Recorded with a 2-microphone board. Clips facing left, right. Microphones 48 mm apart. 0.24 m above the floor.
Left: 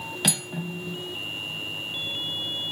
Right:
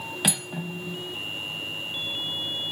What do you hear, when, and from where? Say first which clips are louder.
0.2 s cutlery clinking: even; 10° right (ahead or behind), 0.7 m